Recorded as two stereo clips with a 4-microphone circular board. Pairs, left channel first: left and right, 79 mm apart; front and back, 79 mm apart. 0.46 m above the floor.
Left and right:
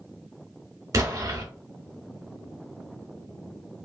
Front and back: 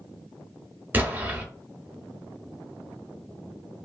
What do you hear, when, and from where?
0.9 s an explosion: 120° right, 0.7 m